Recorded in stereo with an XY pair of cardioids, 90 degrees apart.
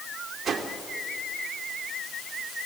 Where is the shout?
No shout in this recording.